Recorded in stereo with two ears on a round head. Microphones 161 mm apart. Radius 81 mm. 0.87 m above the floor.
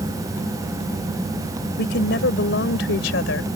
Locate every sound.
1.8 s a woman speaking: 60° left (ahead or behind); by 3.5 s 75° left (ahead or behind)